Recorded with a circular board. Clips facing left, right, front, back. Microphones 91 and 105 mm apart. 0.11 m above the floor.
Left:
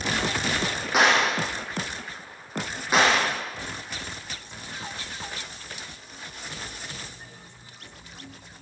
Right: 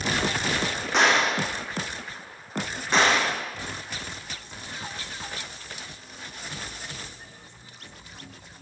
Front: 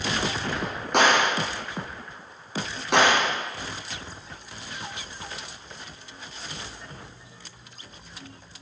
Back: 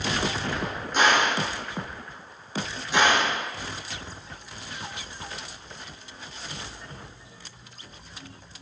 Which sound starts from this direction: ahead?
A gunshot, at 0.9 s.